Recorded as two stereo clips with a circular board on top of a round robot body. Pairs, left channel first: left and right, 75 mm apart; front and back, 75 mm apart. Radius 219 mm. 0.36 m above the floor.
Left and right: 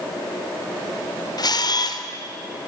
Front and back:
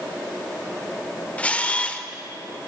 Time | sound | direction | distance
1.4 | a camera shutter | 70° left | 1.7 m